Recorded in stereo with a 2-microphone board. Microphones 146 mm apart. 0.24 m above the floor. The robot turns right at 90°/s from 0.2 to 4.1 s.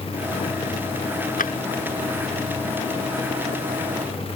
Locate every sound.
1.4 s a drawer: 75° left (ahead or behind); by 1.5 s 70° left (ahead or behind)